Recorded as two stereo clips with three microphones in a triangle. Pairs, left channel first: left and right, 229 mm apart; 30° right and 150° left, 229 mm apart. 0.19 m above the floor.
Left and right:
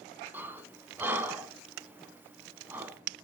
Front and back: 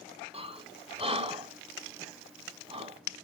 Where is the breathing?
165° right, 0.6 m.